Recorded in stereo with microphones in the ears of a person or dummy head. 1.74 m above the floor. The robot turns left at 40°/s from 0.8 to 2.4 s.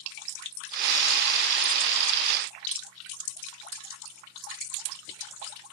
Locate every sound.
Only background noise.